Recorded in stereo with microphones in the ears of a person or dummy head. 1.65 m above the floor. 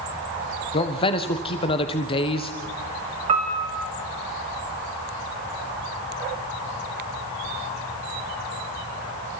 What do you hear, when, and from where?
0.7 s a man speaking: 30° left (ahead or behind), 1.3 m
3.3 s a piano: 30° right (ahead or behind), 1.9 m